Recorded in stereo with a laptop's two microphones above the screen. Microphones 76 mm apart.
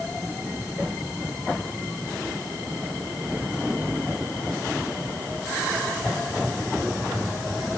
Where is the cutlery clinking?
I don't hear cutlery clinking.